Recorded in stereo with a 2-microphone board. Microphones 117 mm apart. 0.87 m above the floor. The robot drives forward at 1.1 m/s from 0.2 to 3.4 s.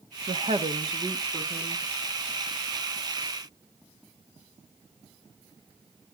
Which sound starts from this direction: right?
A woman speaking, at 0.3 s.